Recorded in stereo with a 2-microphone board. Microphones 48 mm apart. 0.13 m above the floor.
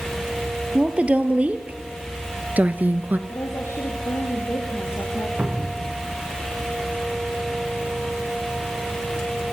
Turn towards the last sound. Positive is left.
turn(degrees=-30)  # may be behind; listen again after turning